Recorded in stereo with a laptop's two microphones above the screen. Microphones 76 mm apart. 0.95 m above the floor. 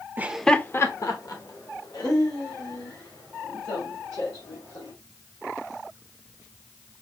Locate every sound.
0.2 s laughter: 25° right (ahead or behind), 0.6 m; by 4.9 s 80° left, 5 m